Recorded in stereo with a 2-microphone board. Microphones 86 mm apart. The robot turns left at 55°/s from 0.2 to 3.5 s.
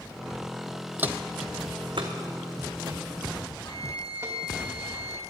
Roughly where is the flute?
Left.